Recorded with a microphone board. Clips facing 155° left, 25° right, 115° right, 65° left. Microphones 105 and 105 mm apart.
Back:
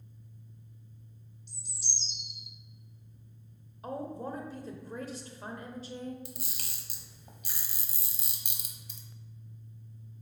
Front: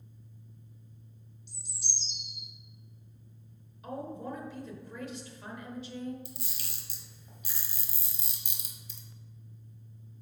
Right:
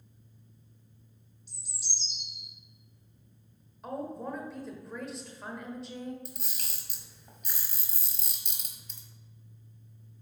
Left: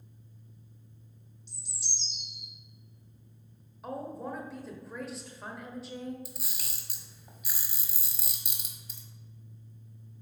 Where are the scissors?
No scissors in this recording.